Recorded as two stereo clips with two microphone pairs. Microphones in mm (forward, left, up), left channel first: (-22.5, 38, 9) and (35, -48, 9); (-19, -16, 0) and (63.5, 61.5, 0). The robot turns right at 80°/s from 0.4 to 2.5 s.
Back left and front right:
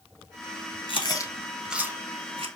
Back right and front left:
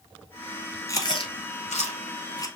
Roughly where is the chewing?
Behind left.